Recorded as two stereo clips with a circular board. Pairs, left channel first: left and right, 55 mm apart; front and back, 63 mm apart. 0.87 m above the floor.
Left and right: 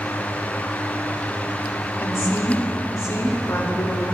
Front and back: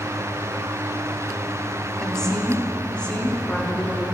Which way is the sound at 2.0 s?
80° left.